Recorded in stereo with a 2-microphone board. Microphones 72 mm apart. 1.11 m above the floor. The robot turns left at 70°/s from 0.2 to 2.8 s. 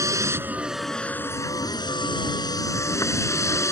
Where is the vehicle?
135° right; by 3.7 s 45° left.